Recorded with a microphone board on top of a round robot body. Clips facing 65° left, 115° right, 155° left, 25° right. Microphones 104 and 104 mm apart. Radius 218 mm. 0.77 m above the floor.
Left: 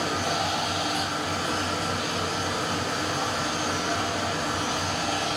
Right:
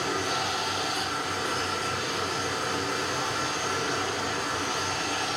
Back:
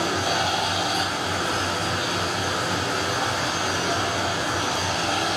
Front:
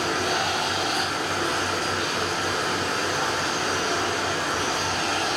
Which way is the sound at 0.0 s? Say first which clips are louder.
Left 2 dB, back 1 dB; 80° left.